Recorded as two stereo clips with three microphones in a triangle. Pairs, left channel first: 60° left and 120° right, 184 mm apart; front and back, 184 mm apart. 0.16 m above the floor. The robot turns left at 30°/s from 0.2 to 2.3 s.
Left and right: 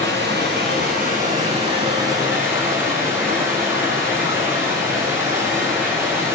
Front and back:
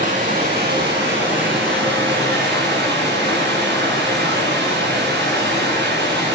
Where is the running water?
135° right, 7 m; by 6.3 s 165° left, 7 m.